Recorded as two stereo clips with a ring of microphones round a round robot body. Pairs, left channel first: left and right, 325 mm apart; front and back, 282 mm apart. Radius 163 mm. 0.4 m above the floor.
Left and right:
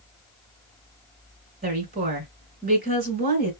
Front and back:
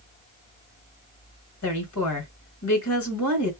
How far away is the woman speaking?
About 2 m.